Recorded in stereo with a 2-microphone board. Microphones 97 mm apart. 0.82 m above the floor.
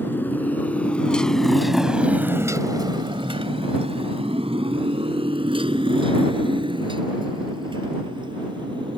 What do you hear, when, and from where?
0.0 s a motorcycle: 20° left (ahead or behind); by 9.0 s 55° right (ahead or behind)